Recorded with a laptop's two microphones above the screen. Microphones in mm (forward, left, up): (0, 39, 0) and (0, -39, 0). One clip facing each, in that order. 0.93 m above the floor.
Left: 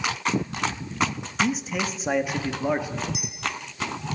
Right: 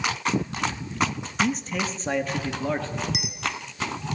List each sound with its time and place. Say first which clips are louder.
1.4 s a man speaking: even; centre (ahead or behind), 1.0 m; by 3.0 s 15° left (ahead or behind), 1.8 m
3.1 s a clink: right 2 dB; 75° right (ahead or behind), 1.9 m